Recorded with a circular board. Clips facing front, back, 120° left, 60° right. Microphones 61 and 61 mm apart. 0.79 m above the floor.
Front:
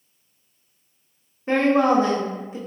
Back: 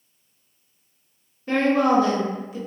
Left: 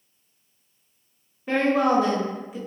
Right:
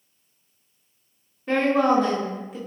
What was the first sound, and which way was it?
A woman speaking, 40° left.